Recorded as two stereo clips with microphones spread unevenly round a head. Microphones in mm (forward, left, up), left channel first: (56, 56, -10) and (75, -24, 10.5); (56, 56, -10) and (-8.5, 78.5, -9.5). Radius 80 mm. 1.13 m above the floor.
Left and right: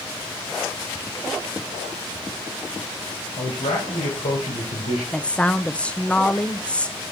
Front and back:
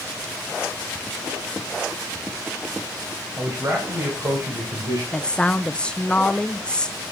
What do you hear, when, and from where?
3.4 s a man speaking: 105° left, 5 m; by 5.0 s 125° left, 4 m
5.1 s a woman speaking: 50° left, 0.8 m